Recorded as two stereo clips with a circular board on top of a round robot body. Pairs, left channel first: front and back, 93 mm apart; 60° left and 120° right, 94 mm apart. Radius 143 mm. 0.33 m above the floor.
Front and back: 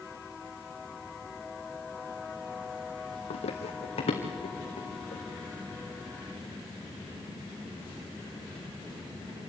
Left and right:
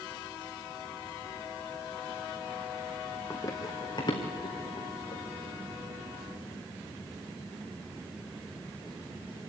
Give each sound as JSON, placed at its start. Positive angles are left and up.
{"t": 3.3, "sound": "running footsteps", "azimuth_deg": -5, "distance_m": 1.3}